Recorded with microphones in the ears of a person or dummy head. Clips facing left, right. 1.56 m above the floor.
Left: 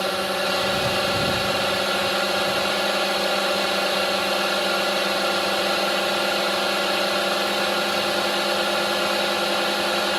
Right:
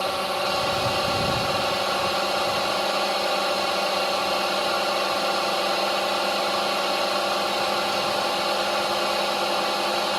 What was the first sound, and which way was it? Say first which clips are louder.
A drone: left 2 dB; 20° left (ahead or behind).